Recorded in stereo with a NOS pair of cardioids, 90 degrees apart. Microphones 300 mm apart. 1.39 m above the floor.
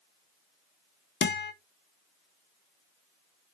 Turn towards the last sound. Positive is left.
turn(degrees=40)